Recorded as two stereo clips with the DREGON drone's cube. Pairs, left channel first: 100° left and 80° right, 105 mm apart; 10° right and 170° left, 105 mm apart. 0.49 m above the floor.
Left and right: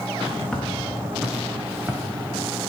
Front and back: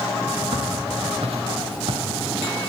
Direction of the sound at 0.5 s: 175° right.